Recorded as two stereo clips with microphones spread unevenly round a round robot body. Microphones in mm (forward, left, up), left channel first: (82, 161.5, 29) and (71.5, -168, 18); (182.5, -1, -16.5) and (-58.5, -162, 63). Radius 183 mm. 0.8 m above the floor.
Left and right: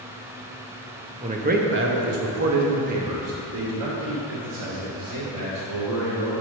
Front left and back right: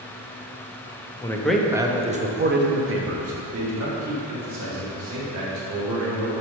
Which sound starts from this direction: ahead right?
A man speaking, at 1.2 s.